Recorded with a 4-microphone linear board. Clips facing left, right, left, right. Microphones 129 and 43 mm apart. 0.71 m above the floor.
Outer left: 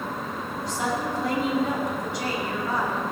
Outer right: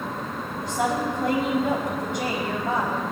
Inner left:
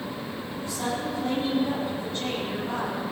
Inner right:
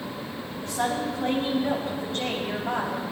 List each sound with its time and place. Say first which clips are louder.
0.6 s a woman speaking: outer right 3 dB, inner right 3 dB; 50° right (ahead or behind), 4 m